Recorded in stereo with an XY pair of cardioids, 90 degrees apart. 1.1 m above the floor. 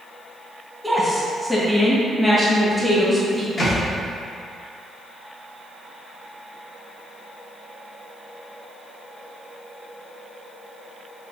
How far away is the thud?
About 1.6 m.